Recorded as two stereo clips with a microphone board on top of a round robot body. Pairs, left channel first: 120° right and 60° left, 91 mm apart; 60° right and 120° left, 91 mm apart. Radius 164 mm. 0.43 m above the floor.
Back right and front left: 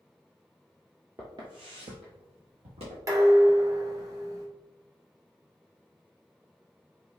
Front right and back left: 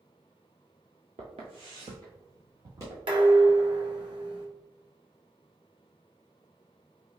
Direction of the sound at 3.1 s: 110° left.